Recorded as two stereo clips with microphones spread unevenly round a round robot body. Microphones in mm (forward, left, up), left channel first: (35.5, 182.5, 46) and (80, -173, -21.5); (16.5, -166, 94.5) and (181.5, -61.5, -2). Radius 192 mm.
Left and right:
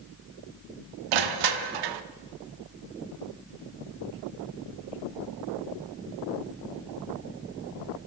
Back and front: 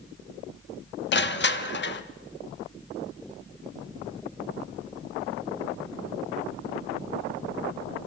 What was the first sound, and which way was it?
Crushing, 120° right.